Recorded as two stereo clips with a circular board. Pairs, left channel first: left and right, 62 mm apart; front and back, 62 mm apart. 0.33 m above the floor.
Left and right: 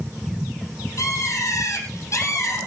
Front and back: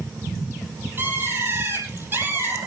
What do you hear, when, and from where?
1.0 s a bird: 125° left, 5.5 m